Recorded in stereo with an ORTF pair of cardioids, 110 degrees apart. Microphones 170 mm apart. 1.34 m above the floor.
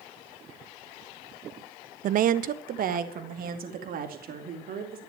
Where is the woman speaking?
55° right, 0.5 m; by 5.0 s 60° right, 3 m.